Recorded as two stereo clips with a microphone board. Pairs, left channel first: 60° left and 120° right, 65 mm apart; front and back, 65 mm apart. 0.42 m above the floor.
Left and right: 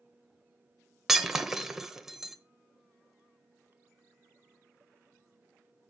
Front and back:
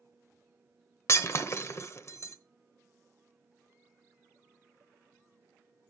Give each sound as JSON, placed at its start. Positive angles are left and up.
{"t": 1.1, "sound": "breaking glass", "azimuth_deg": -40, "distance_m": 0.9}